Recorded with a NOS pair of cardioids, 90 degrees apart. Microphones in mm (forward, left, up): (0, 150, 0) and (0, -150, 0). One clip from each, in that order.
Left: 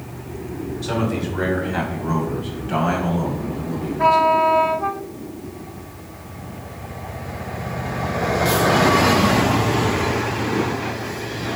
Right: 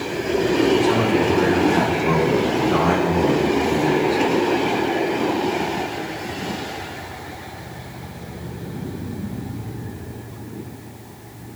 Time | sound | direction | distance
0.8 | a man speaking | 5° left | 6 m